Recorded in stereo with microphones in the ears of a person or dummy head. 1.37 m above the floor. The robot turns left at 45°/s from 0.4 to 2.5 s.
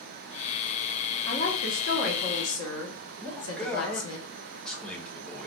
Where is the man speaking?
Centre (ahead or behind), 0.9 m.